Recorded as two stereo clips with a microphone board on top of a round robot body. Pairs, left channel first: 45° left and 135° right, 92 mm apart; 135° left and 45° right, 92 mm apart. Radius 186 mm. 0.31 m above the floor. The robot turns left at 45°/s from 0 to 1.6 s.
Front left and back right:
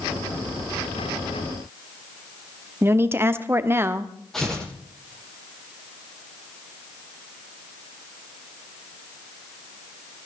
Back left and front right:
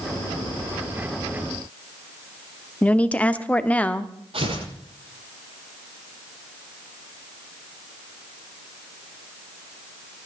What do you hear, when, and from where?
2.8 s a woman speaking: 165° right, 1.3 m
4.3 s tearing paper: 40° right, 9.5 m